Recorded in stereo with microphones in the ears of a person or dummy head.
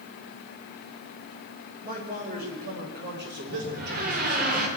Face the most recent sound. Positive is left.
turn(degrees=-50)  # may be behind; listen again after turning